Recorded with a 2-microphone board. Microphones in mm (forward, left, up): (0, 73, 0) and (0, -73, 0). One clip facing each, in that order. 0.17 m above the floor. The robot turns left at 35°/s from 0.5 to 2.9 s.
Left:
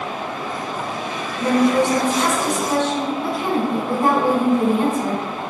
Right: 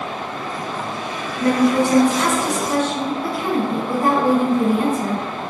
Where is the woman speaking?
25° left (ahead or behind), 1.1 m.